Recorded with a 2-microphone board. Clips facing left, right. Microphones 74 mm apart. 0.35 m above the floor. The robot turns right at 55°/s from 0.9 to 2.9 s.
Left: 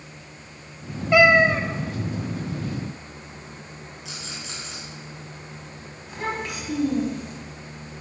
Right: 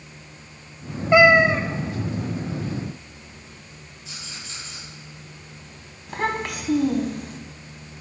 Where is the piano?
I don't hear a piano.